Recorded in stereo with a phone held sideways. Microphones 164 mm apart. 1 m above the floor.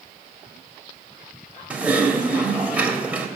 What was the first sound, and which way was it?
Typing on a keyboard, 10° right (ahead or behind).